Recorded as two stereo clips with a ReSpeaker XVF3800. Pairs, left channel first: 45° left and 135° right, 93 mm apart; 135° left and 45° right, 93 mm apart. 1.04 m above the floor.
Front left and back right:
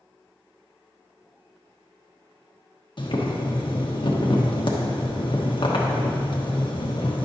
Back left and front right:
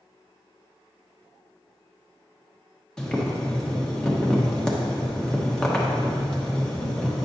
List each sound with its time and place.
3.0 s boiling: 55° left, 1.0 m